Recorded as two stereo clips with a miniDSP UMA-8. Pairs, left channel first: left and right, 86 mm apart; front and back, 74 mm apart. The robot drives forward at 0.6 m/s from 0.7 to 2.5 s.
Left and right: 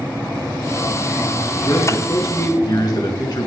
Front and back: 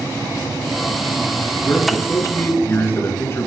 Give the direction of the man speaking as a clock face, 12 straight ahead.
10 o'clock.